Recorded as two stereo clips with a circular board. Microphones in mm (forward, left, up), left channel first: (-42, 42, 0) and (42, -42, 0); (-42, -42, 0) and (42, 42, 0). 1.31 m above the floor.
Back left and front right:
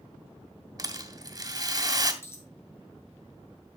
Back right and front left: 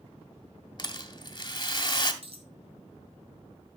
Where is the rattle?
95° right, 1.5 m.